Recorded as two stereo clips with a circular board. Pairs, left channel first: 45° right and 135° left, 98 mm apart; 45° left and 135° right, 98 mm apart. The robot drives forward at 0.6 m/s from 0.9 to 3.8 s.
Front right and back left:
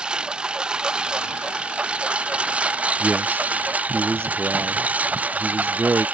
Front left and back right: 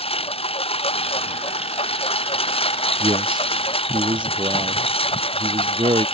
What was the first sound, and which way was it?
A lawn mower, 55° left.